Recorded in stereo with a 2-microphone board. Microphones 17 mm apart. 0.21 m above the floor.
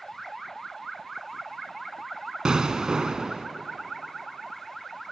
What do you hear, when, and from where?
2.5 s an explosion: 55° right (ahead or behind), 0.7 m